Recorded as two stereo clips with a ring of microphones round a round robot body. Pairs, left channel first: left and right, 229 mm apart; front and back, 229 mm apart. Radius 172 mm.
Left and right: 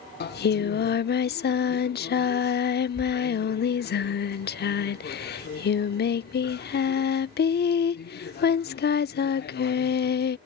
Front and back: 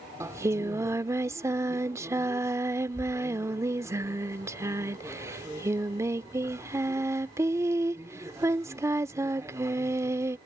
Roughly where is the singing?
Left.